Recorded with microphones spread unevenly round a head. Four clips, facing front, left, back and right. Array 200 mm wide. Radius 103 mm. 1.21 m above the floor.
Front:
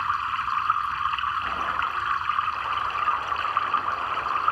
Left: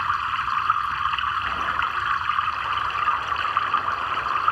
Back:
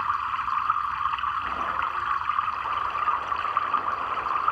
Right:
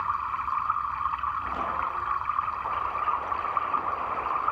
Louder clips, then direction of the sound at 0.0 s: Left 4 dB, even; 95° left.